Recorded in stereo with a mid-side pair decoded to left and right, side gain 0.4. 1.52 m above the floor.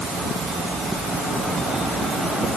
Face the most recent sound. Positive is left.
No sound to turn to.